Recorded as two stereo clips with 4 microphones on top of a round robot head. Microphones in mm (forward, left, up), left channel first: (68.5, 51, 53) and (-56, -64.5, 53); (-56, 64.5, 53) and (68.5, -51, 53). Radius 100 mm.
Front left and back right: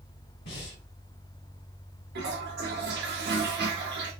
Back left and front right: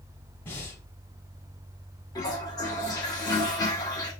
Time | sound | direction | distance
0.5 | breathing | 65° left | 2 m
2.1 | a toilet flushing | 155° right | 1.3 m